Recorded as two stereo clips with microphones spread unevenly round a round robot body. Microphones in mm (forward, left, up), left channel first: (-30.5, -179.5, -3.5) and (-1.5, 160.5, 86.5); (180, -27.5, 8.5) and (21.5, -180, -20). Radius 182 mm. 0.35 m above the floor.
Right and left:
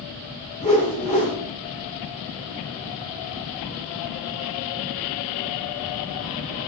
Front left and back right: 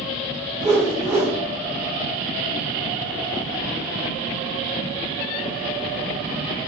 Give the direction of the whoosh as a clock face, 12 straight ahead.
4 o'clock.